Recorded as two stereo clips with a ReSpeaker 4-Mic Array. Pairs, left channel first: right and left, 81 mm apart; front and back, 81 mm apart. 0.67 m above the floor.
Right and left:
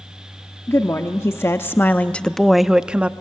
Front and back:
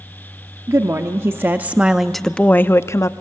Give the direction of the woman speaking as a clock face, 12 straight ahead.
5 o'clock.